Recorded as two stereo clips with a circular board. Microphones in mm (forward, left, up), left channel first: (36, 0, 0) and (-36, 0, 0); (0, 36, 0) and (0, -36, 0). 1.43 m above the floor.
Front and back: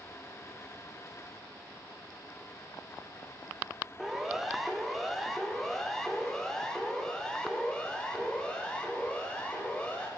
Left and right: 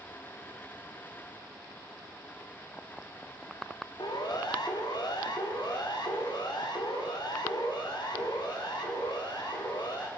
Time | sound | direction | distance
4.0 | a siren | 95° left | 2.5 m